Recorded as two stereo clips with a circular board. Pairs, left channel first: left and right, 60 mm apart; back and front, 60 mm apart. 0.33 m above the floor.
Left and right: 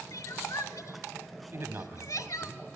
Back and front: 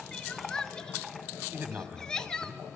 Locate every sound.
0.1 s crying: 100° left, 0.7 m
1.5 s a man speaking: 50° right, 1.8 m